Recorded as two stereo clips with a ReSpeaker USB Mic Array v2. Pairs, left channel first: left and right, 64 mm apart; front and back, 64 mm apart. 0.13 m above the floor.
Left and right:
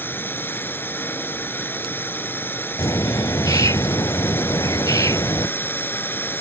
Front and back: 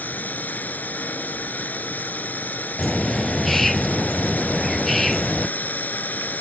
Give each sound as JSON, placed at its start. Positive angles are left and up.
{"t": 0.0, "sound": "a drone", "azimuth_deg": 50}
{"t": 2.8, "sound": "a bird", "azimuth_deg": 90}